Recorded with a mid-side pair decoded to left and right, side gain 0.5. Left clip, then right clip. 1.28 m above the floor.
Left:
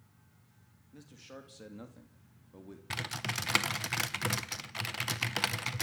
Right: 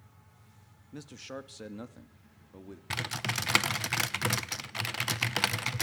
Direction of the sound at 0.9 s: 60° right.